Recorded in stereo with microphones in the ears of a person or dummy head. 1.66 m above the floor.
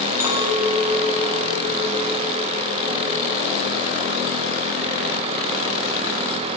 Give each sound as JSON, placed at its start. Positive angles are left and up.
{"t": 0.2, "sound": "a clink", "side_deg": -15, "distance_m": 4.0}